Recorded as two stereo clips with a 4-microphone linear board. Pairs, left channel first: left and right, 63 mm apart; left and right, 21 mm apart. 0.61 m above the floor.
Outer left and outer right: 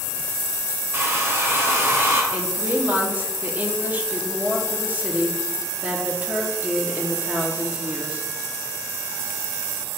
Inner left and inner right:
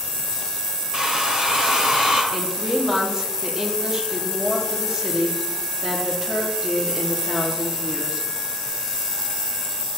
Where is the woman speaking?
30° right (ahead or behind), 1.1 m.